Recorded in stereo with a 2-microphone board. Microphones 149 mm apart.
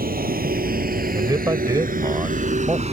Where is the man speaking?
25° right (ahead or behind).